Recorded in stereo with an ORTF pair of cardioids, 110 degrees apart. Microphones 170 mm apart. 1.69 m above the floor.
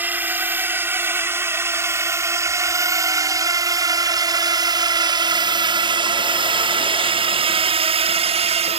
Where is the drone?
10° right; by 8.8 s 40° right.